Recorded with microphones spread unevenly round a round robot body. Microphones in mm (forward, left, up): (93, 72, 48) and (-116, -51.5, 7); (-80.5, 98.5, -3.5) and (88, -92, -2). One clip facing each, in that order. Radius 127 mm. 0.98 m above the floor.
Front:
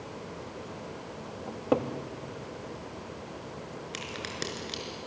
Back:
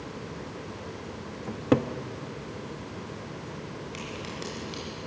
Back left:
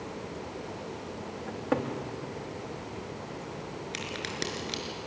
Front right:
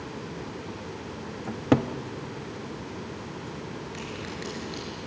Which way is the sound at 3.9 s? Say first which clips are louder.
Back 2 dB, front right 1 dB; 90° left.